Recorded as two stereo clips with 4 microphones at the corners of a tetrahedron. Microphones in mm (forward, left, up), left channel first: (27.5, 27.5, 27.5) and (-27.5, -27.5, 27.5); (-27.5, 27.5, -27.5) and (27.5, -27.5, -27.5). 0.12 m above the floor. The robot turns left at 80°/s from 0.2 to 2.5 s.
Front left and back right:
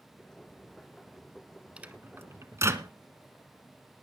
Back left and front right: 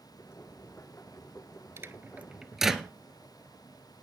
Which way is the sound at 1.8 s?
70° right.